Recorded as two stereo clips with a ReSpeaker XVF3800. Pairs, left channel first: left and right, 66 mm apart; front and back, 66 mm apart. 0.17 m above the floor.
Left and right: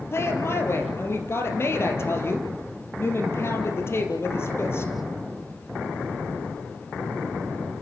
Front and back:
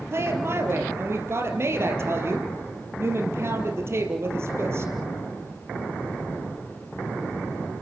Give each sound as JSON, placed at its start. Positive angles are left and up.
{"t": 0.1, "sound": "a woman speaking", "azimuth_deg": 135, "distance_m": 4.0}